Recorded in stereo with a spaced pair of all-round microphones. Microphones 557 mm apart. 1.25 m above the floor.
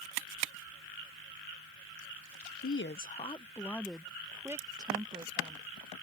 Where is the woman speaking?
25° left (ahead or behind); by 5.7 s 10° right (ahead or behind).